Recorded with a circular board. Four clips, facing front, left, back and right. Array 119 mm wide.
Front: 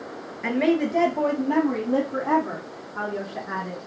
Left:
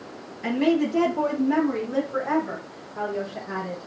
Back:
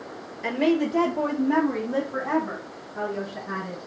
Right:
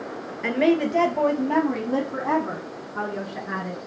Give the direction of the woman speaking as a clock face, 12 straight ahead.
2 o'clock.